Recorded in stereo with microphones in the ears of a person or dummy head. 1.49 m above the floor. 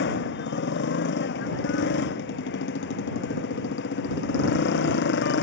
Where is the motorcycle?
65° left (ahead or behind).